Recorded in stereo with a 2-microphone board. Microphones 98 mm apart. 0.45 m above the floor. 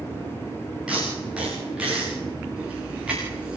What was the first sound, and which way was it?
Tape being pulled, 10° right (ahead or behind).